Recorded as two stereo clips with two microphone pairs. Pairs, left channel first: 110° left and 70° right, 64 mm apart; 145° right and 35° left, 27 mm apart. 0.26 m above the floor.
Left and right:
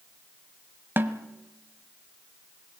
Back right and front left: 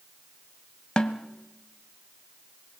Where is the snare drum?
105° right, 1.1 m.